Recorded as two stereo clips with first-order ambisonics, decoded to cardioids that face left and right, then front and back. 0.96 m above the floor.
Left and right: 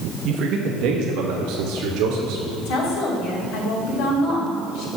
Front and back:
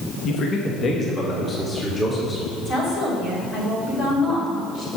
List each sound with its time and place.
0.2 s a man speaking: 50° right, 1.0 m; by 2.5 s 80° right, 2 m
2.6 s a woman speaking: 65° left, 3 m